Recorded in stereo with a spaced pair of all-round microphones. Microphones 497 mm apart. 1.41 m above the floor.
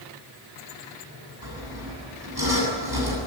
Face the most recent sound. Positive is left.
turn(degrees=-50)  # may be behind; listen again after turning